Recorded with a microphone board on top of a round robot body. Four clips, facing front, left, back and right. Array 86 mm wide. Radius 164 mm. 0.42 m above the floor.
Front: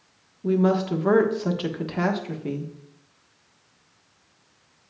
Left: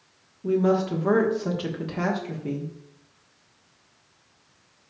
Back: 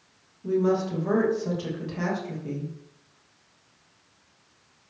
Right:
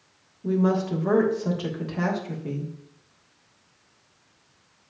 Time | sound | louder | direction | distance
0.4 | a woman speaking | left 1 dB, front 2 dB | 10° left | 1.7 m